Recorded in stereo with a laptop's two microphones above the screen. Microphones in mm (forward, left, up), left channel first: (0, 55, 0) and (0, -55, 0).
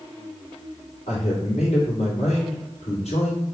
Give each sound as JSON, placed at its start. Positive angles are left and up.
{"t": 1.1, "sound": "a man speaking", "side_deg": 75, "distance_m": 2.0}